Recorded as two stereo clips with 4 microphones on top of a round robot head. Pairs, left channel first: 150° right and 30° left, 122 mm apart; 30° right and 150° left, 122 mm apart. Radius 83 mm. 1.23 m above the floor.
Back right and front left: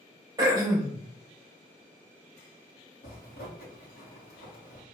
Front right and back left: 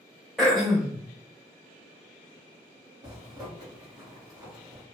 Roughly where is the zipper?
Behind right.